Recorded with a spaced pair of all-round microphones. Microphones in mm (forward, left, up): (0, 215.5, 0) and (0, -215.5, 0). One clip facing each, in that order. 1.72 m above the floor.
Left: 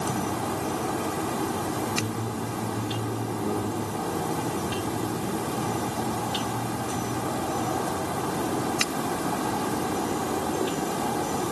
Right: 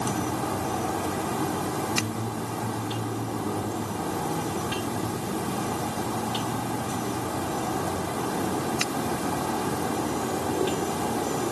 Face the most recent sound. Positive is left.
No sound to turn to.